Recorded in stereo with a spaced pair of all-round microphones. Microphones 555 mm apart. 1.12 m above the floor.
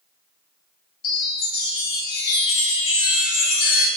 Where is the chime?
60° left (ahead or behind), 0.6 m.